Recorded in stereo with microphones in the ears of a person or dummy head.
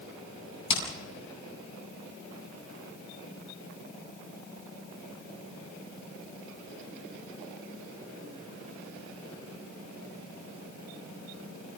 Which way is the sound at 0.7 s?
30° left (ahead or behind).